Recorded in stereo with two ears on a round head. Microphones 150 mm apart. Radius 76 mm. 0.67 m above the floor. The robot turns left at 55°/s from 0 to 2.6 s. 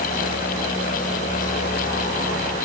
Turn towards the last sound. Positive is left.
No sound to turn to.